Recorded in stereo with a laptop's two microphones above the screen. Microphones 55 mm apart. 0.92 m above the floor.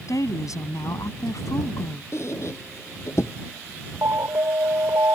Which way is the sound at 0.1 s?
75° left (ahead or behind).